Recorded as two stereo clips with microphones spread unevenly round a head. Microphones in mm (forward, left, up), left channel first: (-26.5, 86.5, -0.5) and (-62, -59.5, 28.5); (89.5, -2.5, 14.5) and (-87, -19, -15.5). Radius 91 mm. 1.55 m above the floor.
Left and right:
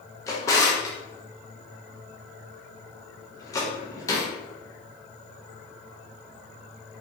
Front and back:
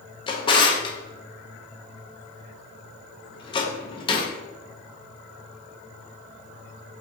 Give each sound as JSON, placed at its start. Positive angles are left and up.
{"t": 0.3, "sound": "a drawer", "azimuth_deg": 0, "distance_m": 0.7}